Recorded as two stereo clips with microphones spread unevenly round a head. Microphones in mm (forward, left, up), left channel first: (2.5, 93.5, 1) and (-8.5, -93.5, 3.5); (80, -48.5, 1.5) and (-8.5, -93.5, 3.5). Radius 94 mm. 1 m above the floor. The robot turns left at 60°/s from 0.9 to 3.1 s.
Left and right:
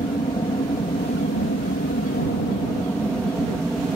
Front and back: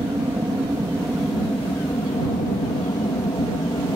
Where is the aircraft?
145° left; by 4.0 s straight ahead.